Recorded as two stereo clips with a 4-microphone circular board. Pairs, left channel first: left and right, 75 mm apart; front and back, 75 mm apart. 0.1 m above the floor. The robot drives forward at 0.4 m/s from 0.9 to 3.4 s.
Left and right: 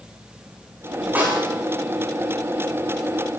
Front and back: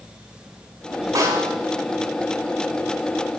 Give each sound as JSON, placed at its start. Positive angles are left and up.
{"t": 1.1, "sound": "a snare drum", "azimuth_deg": -155, "distance_m": 5.5}